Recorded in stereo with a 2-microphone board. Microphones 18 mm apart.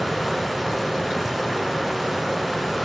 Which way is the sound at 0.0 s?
5° right (ahead or behind).